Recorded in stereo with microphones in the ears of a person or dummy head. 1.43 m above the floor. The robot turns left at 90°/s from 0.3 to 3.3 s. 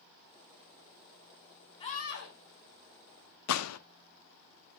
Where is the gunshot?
85° left, 0.6 m.